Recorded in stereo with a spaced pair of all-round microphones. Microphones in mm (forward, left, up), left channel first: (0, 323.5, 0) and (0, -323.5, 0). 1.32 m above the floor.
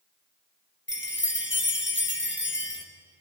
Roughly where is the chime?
Centre.